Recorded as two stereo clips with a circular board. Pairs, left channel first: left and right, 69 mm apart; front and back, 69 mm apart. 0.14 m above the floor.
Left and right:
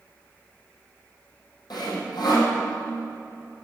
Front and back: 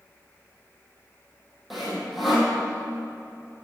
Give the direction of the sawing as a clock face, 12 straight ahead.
9 o'clock.